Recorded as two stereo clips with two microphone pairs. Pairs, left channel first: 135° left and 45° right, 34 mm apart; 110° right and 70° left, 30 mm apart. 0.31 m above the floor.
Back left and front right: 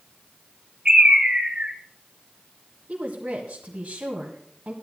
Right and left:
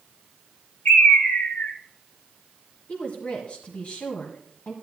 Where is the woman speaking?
85° right, 1.7 m.